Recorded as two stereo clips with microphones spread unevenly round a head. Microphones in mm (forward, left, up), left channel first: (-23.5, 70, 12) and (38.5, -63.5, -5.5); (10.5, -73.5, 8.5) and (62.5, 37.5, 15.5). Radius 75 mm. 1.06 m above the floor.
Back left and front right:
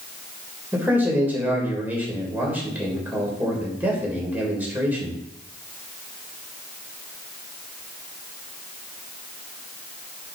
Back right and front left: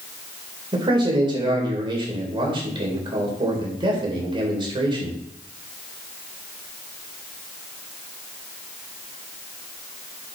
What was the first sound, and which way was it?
A man speaking, 15° left.